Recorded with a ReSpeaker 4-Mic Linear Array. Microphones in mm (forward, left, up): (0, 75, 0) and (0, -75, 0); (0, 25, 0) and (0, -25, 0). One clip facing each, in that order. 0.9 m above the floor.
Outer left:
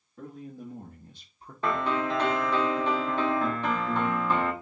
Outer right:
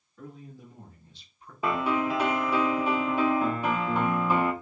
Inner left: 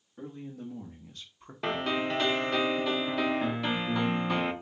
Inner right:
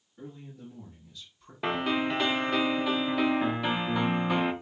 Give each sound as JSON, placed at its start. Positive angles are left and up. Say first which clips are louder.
{"t": 0.2, "sound": "a man speaking", "louder": "outer left 4 dB, inner left 4 dB", "side_deg": 55, "distance_m": 1.5}
{"t": 1.6, "sound": "a piano", "louder": "outer right 1 dB, inner right 2 dB", "side_deg": -10, "distance_m": 0.6}